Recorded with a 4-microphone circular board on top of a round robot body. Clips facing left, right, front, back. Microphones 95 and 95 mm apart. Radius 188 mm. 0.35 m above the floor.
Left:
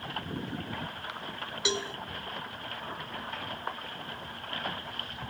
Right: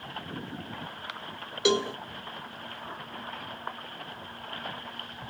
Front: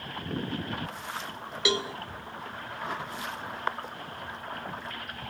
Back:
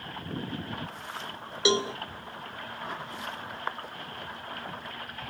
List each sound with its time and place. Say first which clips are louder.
1.6 s a cowbell: right 8 dB, back 4 dB; 115° right, 0.6 m